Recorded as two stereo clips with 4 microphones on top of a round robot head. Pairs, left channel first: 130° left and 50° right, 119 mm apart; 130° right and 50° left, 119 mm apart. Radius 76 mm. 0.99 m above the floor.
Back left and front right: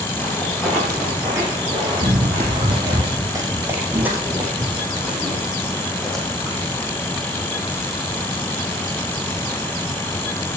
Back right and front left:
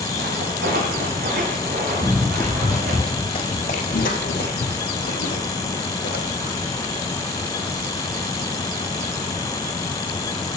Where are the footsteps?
50° left, 3 m; by 3.0 s 10° left, 5 m.